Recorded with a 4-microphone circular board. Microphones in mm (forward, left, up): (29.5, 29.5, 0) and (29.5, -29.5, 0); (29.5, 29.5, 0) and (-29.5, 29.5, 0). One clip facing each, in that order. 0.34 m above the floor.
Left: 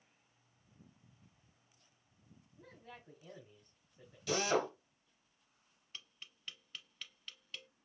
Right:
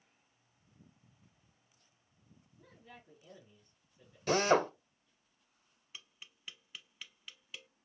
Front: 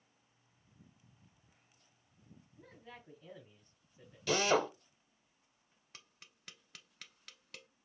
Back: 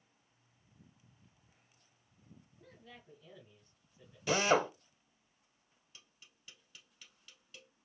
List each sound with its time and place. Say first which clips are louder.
2.6 s a man speaking: left 2 dB, front 3 dB; 50° left, 2.5 m
4.3 s a drill: right 6 dB, back 1 dB; 115° right, 0.8 m
5.9 s tapping: even, front 4 dB; 10° right, 0.6 m